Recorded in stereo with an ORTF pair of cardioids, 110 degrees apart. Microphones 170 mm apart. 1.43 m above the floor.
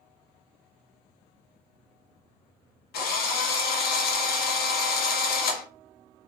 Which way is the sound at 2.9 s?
65° left.